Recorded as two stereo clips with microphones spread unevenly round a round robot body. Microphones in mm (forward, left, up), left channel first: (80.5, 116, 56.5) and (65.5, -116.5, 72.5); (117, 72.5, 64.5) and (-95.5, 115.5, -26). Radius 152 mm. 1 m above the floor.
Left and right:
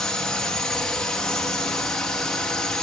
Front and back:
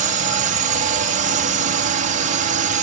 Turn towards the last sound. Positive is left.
turn(degrees=170)